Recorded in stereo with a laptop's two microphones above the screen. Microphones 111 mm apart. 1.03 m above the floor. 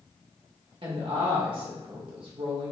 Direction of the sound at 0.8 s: 50° right (ahead or behind).